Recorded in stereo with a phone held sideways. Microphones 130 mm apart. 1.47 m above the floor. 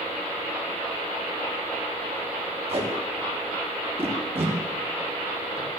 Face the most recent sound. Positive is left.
turn(degrees=-45)  # may be behind; listen again after turning